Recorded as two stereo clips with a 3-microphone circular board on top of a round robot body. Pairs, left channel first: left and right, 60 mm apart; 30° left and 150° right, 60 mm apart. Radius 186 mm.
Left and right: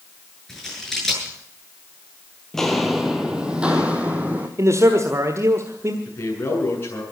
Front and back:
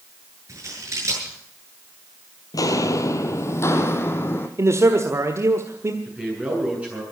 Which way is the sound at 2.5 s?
5° left.